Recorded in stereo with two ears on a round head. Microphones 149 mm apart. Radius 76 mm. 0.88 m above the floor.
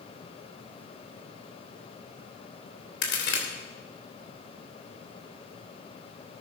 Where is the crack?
75° left (ahead or behind), 3.5 m.